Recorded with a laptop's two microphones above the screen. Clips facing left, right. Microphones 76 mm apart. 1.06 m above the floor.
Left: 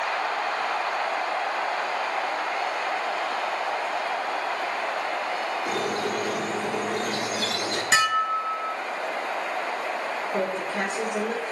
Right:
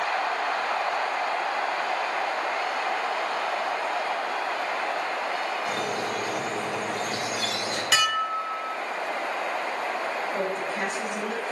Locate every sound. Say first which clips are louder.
5.7 s a squeak: left 2 dB; 65° left (ahead or behind), 1.6 m
7.9 s dishes clattering: left 3 dB; 30° left (ahead or behind), 0.7 m
10.3 s a woman speaking: left 1 dB; 65° left (ahead or behind), 4 m